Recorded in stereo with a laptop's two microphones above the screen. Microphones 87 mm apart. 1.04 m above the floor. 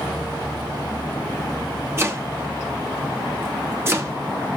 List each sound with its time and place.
2.0 s chopping: 30° right (ahead or behind), 2 m